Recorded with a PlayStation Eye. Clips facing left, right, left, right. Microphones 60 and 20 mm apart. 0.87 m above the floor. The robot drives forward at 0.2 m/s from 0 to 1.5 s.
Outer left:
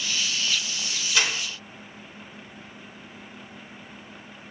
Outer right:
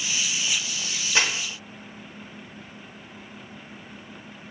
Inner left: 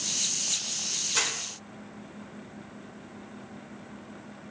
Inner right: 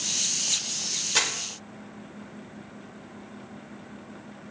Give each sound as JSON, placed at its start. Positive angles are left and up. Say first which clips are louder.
{"t": 1.1, "sound": "crumpling", "louder": "outer right 1 dB, inner right 4 dB", "side_deg": -25, "distance_m": 0.8}